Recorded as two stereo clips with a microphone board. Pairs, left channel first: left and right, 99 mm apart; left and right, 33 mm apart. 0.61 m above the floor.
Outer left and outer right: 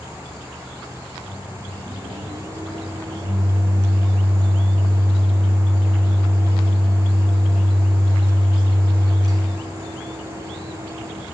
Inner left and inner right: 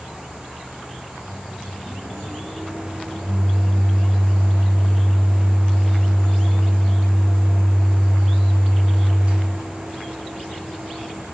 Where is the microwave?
40° right (ahead or behind), 0.5 m.